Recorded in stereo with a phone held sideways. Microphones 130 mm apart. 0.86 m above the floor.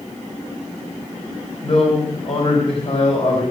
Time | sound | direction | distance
1.6 | a man speaking | 45° left (ahead or behind) | 4.5 m